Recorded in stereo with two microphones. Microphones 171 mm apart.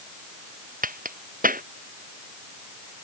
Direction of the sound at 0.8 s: 50° right (ahead or behind).